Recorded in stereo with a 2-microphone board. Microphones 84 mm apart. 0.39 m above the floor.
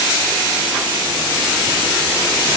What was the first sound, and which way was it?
Only background noise.